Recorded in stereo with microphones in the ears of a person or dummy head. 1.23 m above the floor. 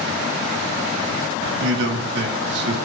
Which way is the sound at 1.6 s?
70° right (ahead or behind).